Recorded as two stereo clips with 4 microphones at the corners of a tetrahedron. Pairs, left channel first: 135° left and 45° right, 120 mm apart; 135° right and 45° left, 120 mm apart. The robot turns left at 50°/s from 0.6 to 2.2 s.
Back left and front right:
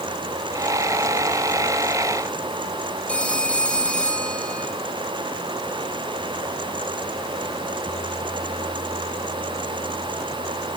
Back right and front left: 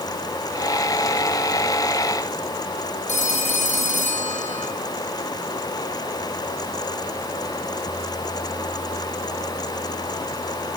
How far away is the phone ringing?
About 4.5 m.